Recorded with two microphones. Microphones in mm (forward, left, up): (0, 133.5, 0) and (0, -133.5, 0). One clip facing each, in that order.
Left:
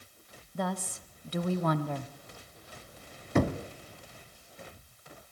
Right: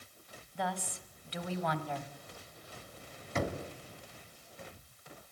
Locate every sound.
0.6 s a woman speaking: 50° left (ahead or behind), 1.3 m
3.4 s knocking: 60° left (ahead or behind), 1.7 m